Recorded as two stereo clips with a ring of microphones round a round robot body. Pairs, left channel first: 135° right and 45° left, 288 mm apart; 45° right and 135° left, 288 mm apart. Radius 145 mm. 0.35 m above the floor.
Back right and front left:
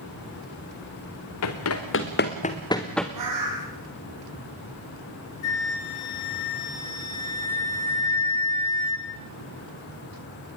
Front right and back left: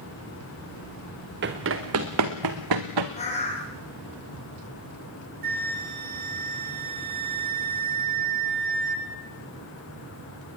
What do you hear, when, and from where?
1.4 s running footsteps: 170° right, 3 m; by 3.1 s 135° left, 2.5 m
3.2 s a bird: 25° left, 5.5 m
5.4 s a flute: 170° right, 3.5 m